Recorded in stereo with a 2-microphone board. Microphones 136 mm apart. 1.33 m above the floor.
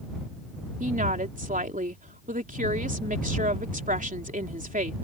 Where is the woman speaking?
80° right.